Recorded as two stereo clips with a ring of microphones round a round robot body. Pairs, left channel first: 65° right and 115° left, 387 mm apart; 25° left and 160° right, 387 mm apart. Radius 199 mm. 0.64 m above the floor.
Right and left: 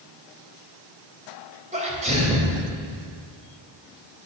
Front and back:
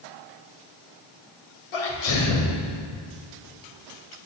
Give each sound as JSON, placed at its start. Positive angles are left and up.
{"t": 1.7, "sound": "a sneeze", "azimuth_deg": 40, "distance_m": 2.5}